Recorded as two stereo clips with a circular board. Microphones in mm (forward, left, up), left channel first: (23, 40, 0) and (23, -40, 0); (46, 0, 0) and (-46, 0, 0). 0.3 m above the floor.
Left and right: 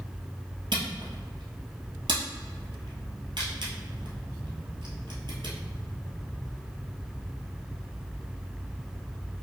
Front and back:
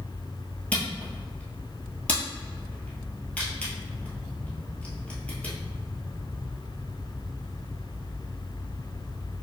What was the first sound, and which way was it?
A camera shutter, 75° right.